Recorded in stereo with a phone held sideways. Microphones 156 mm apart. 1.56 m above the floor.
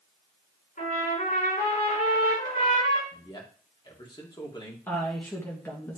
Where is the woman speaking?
15° left (ahead or behind), 1.5 m.